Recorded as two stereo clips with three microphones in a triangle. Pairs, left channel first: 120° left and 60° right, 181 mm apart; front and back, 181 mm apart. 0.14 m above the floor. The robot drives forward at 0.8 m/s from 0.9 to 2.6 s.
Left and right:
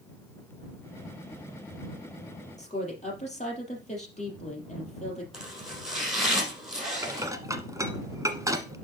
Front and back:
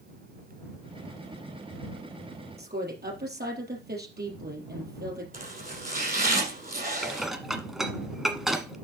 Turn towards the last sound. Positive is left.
turn(degrees=-95)